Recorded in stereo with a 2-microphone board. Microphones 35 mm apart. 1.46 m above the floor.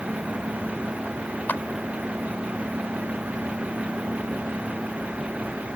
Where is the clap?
60° left (ahead or behind).